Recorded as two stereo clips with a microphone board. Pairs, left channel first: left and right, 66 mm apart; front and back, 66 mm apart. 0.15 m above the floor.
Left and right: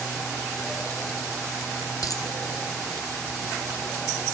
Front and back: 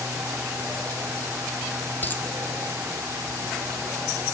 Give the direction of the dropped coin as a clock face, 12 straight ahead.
10 o'clock.